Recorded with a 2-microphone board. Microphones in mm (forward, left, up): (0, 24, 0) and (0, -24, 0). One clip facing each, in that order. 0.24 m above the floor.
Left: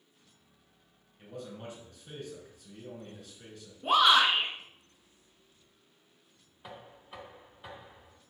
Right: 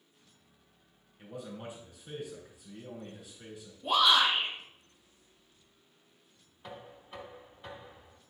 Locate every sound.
1.2 s a man speaking: 15° right (ahead or behind), 3.5 m
3.8 s a shout: 55° left (ahead or behind), 3 m
6.6 s knocking: 5° left (ahead or behind), 1.4 m